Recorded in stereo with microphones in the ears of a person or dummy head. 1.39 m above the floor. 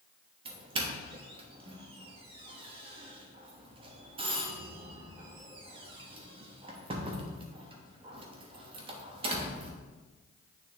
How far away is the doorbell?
About 1.0 m.